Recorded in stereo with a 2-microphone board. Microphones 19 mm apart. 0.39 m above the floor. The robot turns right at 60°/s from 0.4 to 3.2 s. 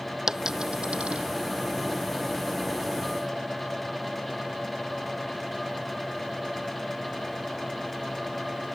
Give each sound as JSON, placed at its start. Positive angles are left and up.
{"t": 0.3, "sound": "a dropped coin", "side_deg": -40}